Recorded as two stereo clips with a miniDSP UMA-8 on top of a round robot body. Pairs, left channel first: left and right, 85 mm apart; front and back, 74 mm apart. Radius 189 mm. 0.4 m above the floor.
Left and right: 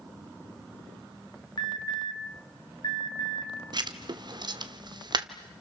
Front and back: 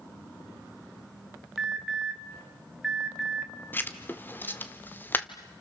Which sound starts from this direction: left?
An alarm, at 1.6 s.